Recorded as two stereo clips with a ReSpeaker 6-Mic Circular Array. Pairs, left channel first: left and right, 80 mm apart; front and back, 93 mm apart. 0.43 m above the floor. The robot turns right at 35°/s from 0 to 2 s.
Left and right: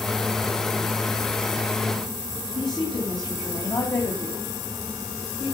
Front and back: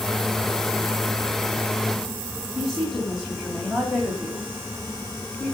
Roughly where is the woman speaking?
Left.